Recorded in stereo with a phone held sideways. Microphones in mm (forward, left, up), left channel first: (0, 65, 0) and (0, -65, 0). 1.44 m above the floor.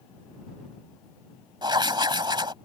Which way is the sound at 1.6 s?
35° right (ahead or behind).